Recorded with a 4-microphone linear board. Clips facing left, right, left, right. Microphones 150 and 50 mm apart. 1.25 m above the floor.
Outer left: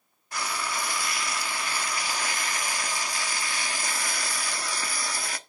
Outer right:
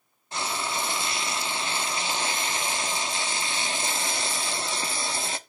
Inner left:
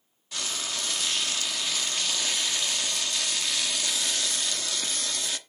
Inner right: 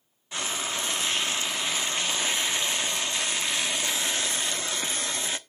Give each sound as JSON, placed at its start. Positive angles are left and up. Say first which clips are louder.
{"t": 0.3, "sound": "frying", "louder": "outer right 2 dB, inner right 3 dB", "side_deg": -25, "distance_m": 0.9}